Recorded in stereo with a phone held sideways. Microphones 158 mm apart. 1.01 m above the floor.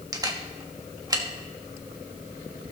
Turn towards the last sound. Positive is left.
turn(degrees=-20)  # may be behind; listen again after turning